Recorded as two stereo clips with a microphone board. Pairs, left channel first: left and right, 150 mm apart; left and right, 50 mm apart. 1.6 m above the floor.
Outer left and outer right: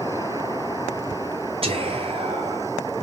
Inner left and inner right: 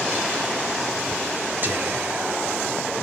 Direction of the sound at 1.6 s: 40° right (ahead or behind).